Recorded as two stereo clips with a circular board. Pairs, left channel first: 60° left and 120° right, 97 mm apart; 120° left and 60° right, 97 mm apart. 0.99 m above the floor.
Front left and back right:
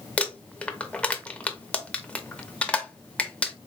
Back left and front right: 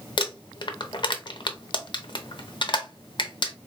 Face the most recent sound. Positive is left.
turn(degrees=135)